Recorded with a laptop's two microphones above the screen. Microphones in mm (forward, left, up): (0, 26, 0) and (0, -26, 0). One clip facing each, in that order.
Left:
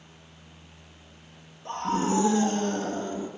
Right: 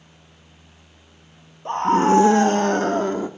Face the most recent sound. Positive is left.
turn(degrees=-80)